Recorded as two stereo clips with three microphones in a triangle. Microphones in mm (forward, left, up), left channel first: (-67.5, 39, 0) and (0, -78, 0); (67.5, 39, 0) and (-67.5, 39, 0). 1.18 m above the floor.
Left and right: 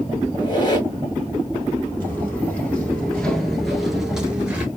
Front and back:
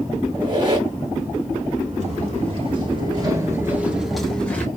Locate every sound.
0.3 s a squeak: 155° left, 1.2 m
2.0 s footsteps: 165° right, 1.7 m; by 4.7 s 10° right, 1.1 m